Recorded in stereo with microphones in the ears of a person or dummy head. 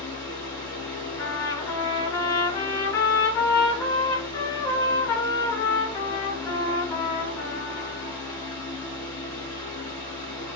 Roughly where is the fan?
Left.